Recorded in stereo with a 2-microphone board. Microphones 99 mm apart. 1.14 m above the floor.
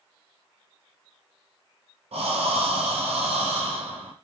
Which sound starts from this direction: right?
Breathing, at 2.1 s.